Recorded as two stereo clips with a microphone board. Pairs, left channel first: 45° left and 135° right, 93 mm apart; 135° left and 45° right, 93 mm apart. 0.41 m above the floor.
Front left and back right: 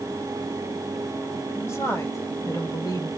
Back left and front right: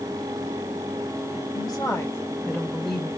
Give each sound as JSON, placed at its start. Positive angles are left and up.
{"t": 1.6, "sound": "a woman speaking", "azimuth_deg": 100, "distance_m": 2.5}